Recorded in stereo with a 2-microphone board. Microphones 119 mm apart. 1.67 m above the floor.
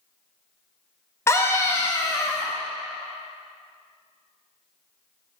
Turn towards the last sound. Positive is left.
turn(degrees=25)  # may be behind; listen again after turning